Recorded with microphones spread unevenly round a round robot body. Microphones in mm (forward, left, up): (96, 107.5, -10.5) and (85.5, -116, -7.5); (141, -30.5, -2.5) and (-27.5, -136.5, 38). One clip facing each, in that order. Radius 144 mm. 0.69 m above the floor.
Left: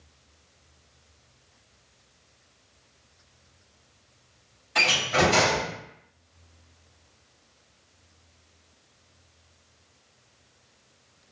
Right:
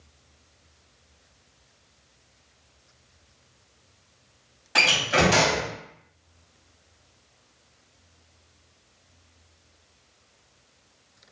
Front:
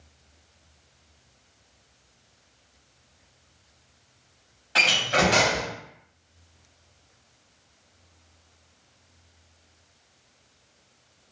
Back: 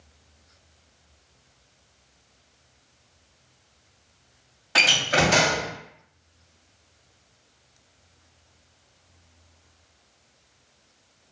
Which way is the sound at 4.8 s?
110° right.